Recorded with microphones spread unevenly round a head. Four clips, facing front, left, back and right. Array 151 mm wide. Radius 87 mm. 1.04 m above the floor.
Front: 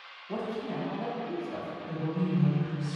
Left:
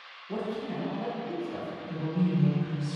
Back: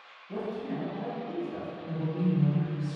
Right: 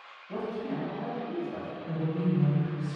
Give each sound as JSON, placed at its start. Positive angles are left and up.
{"t": 0.3, "sound": "a man speaking", "azimuth_deg": 15, "distance_m": 0.9}
{"t": 1.9, "sound": "a woman speaking", "azimuth_deg": -145, "distance_m": 1.7}